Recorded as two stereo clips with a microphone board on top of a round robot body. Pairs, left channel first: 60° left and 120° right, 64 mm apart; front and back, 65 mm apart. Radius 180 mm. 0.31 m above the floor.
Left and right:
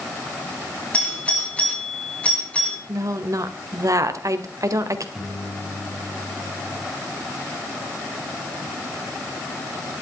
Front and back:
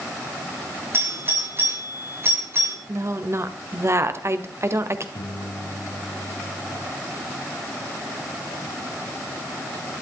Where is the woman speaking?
140° right, 2 m.